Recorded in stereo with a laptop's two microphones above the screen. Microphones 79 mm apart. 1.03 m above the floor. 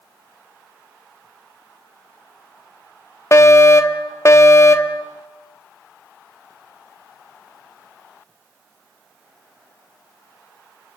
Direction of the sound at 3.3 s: 35° left (ahead or behind).